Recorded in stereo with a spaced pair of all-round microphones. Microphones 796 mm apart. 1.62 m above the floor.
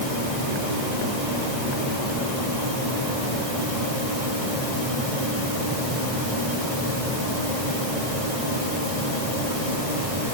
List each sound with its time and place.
Only background noise.